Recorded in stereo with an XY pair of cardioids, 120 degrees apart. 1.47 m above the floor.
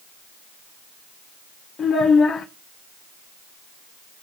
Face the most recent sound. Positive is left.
turn(degrees=45)